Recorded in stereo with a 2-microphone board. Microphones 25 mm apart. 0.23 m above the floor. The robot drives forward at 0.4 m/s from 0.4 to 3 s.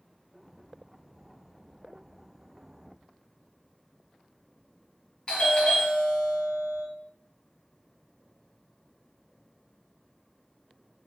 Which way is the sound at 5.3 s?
30° left (ahead or behind).